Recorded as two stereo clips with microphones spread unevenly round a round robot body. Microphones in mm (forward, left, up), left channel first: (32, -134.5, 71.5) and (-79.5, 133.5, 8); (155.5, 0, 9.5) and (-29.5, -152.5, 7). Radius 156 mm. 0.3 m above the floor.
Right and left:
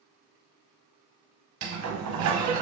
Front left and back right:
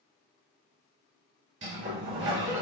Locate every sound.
1.6 s a sliding door: 145° left, 0.6 m